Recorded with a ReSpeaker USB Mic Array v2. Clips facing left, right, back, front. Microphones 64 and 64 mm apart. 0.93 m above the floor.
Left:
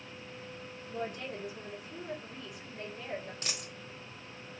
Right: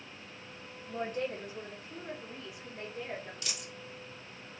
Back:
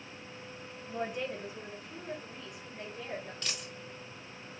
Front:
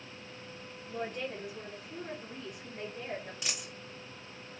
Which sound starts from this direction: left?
A dropped coin, at 3.4 s.